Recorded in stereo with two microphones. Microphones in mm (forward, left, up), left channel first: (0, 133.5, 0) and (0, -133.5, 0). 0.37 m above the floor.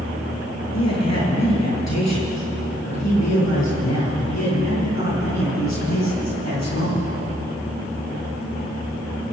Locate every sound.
0.7 s a man speaking: 75° left (ahead or behind), 8 m; by 7.1 s 85° left, 12.5 m